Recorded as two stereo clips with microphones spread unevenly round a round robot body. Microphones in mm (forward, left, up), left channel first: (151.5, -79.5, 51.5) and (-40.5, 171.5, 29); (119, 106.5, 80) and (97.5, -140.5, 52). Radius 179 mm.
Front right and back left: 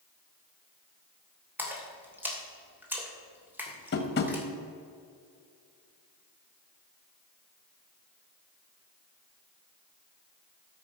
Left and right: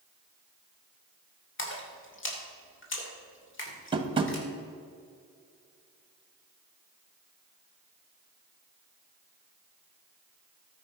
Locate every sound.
1.6 s a splash: 45° left, 2.5 m
3.9 s tapping: 70° right, 1.2 m